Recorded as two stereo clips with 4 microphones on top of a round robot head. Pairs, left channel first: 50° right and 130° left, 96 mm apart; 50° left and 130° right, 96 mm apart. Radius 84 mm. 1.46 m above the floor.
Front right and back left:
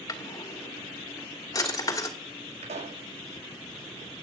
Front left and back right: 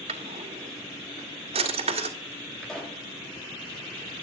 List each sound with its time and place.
0.1 s a drawer: 105° right, 2.5 m
2.6 s a pop: 135° left, 7 m